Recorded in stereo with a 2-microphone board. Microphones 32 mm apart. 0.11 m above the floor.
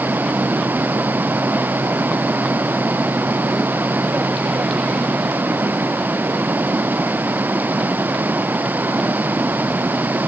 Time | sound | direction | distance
0.0 | running water | 80° right | ?